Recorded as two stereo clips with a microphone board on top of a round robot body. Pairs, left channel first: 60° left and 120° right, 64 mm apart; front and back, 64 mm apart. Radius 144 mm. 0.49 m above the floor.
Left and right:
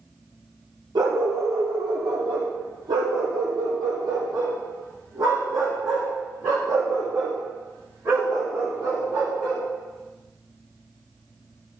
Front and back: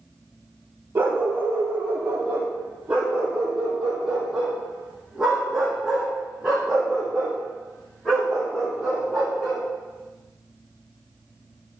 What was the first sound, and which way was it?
A dog barking, 115° right.